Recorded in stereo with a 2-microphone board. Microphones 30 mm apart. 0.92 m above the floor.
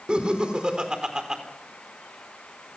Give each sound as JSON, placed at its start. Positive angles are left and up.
{"t": 0.1, "sound": "laughter", "side_deg": -35, "distance_m": 4.0}